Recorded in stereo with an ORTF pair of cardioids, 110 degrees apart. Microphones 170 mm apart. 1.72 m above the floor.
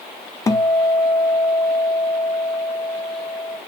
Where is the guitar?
20° left, 0.6 m.